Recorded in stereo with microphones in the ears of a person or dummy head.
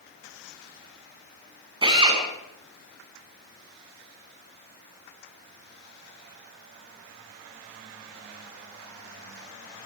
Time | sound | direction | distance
1.8 | a drill | 25° right (ahead or behind) | 7.5 m